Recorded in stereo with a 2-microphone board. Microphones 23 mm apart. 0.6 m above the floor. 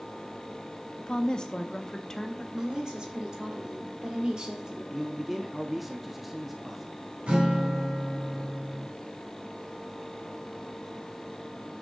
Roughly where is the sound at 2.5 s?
Right.